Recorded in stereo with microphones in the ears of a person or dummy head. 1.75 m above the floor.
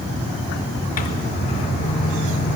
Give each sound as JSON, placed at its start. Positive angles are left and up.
{"t": 1.0, "sound": "a microwave", "side_deg": 45, "distance_m": 1.5}